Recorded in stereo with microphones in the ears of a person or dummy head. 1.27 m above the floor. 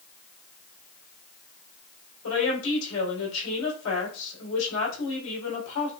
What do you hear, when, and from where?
2.2 s a woman speaking: 85° left, 4.5 m